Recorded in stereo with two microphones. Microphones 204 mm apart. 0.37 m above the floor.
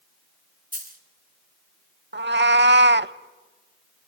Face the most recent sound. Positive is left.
turn(degrees=-60)  # may be behind; listen again after turning